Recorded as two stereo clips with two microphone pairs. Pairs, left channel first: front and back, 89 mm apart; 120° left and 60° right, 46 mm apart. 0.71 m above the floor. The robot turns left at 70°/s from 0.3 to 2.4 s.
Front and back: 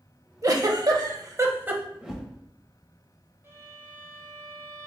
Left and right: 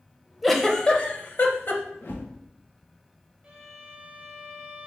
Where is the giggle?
150° right, 0.6 m; by 1.8 s 115° left, 0.6 m.